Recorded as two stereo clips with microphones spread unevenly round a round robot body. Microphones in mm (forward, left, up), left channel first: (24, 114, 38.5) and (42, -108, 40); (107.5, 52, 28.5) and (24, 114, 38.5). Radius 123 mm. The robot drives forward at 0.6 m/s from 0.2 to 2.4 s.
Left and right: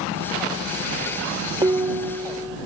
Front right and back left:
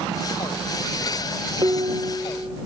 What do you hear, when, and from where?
1.6 s dishes clattering: 160° right, 0.6 m; by 2.6 s 170° right, 1.0 m